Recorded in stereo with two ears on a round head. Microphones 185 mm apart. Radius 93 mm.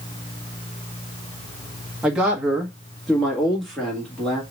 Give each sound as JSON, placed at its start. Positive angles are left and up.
{"t": 2.0, "sound": "a man speaking", "side_deg": -5, "distance_m": 1.0}